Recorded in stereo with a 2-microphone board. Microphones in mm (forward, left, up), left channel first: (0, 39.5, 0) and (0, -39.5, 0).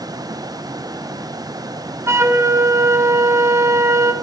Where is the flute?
35° right (ahead or behind), 2.5 m.